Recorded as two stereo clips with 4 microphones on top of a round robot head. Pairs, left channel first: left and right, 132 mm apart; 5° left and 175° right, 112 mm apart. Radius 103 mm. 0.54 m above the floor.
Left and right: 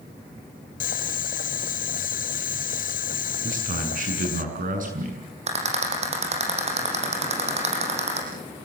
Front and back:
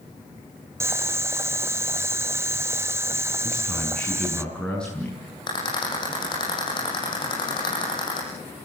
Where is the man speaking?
80° right, 7 m.